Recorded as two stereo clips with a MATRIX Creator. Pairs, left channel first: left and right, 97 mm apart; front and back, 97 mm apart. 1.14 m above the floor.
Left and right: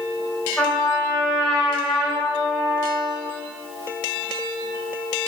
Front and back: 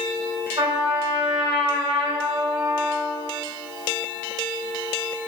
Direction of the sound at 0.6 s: 175° left.